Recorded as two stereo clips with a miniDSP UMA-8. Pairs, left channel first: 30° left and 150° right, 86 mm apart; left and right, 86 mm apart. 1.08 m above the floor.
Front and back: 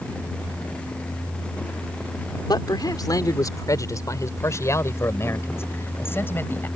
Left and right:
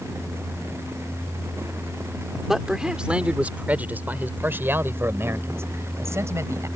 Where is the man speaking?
5° right; by 6.7 s 35° right.